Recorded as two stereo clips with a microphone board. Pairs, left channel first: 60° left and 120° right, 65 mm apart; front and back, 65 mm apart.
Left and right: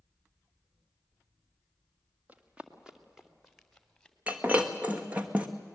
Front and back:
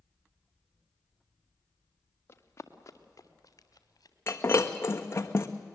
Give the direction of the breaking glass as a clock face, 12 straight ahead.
2 o'clock.